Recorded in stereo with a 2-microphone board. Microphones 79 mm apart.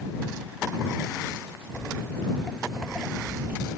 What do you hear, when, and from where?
1.7 s footsteps: 30° left (ahead or behind); by 3.7 s 20° right (ahead or behind)